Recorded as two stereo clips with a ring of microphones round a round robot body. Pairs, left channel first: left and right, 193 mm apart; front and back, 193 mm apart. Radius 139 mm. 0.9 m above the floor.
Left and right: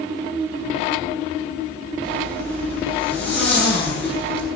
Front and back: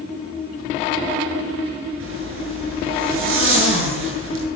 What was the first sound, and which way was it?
A zipper, 175° left.